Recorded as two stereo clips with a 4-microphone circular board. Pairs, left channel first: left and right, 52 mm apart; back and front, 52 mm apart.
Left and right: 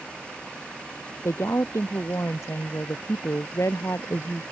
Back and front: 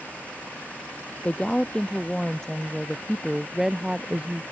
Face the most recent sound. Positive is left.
turn(degrees=65)